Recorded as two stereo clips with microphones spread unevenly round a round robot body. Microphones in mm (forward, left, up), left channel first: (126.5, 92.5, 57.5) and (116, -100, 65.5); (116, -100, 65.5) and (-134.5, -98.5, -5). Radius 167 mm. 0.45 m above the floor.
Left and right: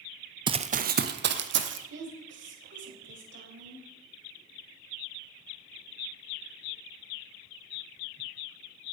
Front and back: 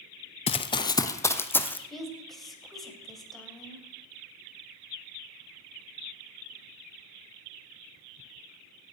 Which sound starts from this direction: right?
A woman speaking, at 1.9 s.